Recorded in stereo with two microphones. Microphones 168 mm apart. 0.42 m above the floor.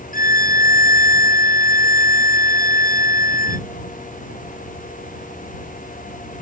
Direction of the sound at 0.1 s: 55° left (ahead or behind).